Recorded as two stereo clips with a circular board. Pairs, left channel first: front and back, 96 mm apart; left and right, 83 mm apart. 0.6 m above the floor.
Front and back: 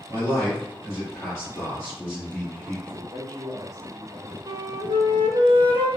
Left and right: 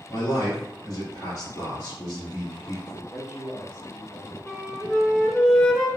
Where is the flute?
175° left, 0.5 m.